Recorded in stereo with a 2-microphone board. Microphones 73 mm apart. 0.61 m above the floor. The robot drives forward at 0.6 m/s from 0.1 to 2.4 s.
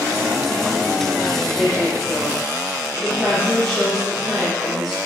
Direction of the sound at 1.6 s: Centre (ahead or behind).